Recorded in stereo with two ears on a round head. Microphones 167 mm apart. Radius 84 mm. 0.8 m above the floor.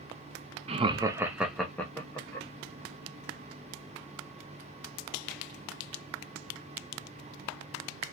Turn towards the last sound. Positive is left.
turn(degrees=15)  # may be behind; listen again after turning